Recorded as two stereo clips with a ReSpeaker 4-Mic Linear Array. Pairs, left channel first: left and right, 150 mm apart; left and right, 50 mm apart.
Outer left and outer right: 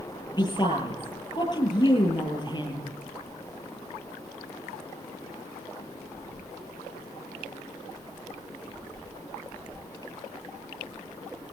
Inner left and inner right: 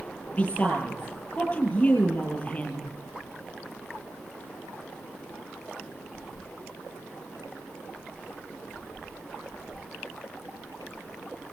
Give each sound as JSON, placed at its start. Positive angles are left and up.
{"t": 0.4, "sound": "a woman speaking", "side_deg": 35, "distance_m": 9.0}